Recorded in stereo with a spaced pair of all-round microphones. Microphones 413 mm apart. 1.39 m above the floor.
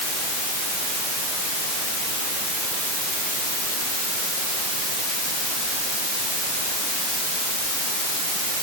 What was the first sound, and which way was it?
Only background noise.